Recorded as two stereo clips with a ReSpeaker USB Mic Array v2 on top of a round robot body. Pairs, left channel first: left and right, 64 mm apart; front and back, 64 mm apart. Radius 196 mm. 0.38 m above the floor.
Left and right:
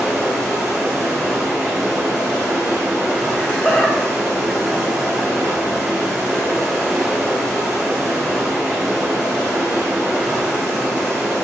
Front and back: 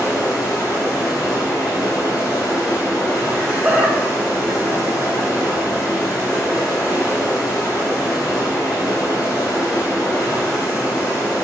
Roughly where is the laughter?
Behind left.